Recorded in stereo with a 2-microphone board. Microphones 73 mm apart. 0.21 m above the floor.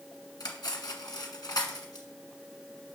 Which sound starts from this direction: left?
Cutlery clinking, at 0.4 s.